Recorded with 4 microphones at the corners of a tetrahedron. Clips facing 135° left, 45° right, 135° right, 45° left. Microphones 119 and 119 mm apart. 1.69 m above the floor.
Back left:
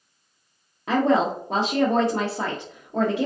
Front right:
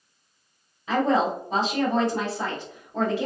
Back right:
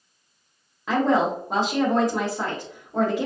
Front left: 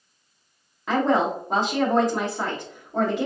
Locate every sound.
0.9 s a woman speaking: 135° left, 0.7 m